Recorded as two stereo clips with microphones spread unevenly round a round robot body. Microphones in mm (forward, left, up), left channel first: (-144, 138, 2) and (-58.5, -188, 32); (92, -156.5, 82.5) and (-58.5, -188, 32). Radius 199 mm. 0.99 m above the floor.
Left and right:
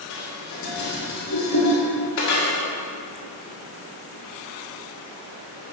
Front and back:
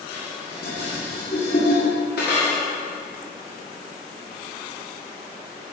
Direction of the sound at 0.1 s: 55° left.